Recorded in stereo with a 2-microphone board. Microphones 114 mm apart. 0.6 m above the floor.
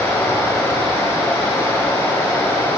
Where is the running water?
25° left (ahead or behind), 3 m.